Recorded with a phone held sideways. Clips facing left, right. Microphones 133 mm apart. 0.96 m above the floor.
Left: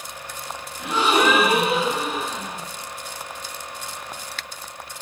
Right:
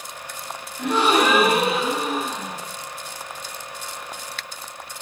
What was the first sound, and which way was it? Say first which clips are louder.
A gasp: right 1 dB; 55° right (ahead or behind).